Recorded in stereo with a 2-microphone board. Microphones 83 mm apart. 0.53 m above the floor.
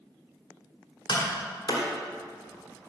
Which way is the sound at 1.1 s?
65° left (ahead or behind).